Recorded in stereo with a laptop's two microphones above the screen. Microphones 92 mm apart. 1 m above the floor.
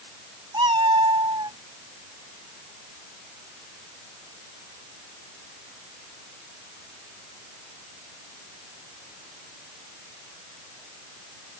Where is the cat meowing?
55° right (ahead or behind).